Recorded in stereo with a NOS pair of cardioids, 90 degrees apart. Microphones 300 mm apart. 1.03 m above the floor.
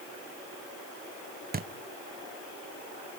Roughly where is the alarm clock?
No alarm clock in this recording.